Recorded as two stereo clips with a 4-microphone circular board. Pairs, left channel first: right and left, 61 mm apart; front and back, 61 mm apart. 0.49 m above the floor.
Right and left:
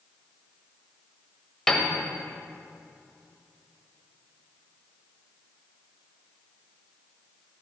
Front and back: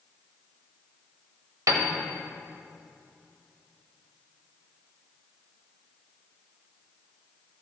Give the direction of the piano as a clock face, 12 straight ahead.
6 o'clock.